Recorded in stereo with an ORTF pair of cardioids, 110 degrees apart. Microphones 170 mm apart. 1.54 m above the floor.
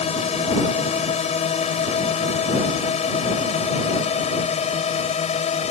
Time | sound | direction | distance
0.0 | a drone | 40° left | ?